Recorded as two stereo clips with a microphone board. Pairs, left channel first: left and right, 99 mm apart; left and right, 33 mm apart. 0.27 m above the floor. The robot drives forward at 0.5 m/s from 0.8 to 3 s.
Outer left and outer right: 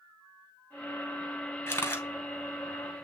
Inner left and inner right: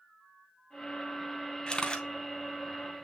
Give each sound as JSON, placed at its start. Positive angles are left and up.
{"t": 1.7, "sound": "a camera shutter", "side_deg": 25, "distance_m": 2.0}